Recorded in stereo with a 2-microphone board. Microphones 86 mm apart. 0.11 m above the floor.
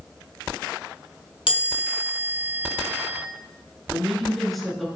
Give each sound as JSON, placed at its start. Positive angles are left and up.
{"t": 1.5, "sound": "a chime", "side_deg": 70, "distance_m": 0.9}
{"t": 3.9, "sound": "a woman speaking", "side_deg": 0, "distance_m": 1.1}